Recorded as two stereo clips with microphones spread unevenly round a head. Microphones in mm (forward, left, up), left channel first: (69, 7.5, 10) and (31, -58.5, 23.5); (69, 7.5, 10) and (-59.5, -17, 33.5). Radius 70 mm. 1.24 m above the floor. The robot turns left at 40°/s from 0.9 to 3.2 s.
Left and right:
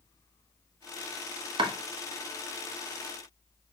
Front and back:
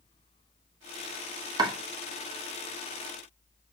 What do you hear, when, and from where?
1.6 s chopping: 110° right, 0.9 m; by 1.7 s 115° right, 0.9 m